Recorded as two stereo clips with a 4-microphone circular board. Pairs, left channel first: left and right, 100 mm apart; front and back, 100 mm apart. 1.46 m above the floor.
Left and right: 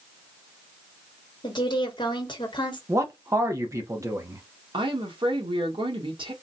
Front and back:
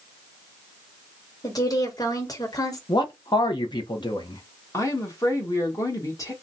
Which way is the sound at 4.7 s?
55° right.